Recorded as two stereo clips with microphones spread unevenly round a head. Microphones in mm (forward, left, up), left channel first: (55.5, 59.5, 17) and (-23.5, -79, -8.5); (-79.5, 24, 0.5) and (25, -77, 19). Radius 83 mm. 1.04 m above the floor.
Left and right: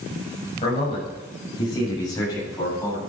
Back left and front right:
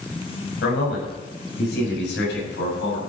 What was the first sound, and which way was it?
A man speaking, 115° left.